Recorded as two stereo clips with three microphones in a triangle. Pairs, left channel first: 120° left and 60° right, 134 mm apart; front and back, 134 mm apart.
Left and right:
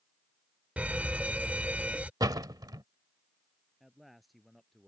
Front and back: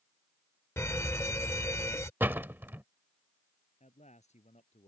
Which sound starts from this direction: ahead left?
A man speaking, at 3.8 s.